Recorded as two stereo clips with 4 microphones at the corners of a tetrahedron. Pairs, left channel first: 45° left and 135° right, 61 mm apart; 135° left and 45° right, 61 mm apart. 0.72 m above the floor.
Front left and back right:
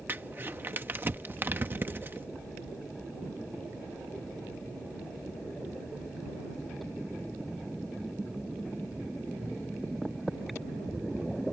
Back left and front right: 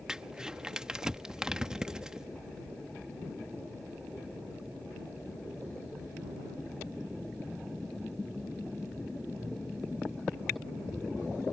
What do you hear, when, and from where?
0.1 s crumpling: 115° right